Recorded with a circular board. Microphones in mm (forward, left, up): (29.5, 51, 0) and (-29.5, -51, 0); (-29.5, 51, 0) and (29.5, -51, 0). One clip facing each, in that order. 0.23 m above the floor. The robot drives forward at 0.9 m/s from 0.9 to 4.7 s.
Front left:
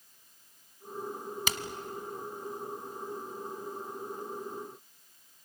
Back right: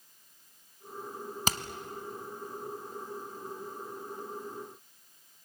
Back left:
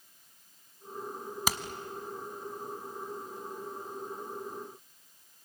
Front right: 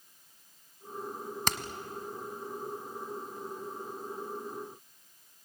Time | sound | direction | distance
1.5 | hammering | 160° right | 1.0 m